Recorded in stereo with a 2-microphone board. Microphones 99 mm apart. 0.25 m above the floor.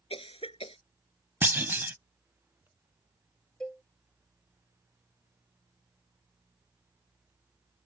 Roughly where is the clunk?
Right.